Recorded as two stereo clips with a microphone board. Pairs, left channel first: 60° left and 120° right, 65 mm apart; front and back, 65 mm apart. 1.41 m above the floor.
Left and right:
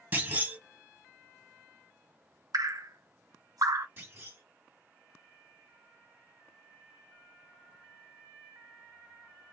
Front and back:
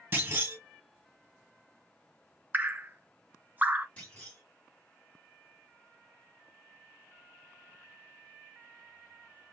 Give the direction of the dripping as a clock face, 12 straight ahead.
4 o'clock.